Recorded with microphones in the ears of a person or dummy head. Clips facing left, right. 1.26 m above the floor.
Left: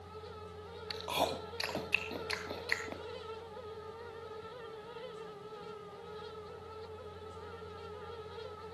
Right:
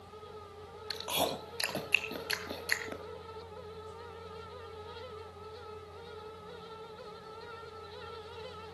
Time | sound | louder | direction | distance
0.9 | chewing | right 1 dB | 10° right (ahead or behind) | 2 m